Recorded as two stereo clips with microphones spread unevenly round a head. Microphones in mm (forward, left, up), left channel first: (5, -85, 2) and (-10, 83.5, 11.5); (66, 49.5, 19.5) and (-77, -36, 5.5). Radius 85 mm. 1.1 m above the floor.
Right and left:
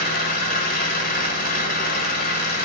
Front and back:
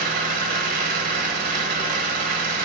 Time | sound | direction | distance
0.0 | an engine running | 110° right | 1.3 m